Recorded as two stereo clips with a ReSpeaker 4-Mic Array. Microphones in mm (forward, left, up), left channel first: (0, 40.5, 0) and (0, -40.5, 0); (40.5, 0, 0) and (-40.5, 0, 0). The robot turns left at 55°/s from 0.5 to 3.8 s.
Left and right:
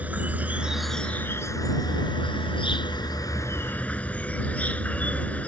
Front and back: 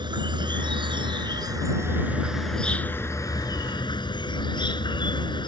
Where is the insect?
160° right; by 5.5 s 15° left.